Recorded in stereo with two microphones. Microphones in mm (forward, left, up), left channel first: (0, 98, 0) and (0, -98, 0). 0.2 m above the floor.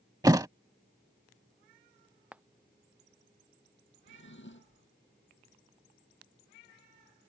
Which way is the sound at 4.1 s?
75° left (ahead or behind).